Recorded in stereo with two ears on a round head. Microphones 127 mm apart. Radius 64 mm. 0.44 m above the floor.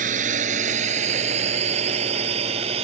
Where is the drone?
55° right (ahead or behind); by 2.8 s 40° right (ahead or behind).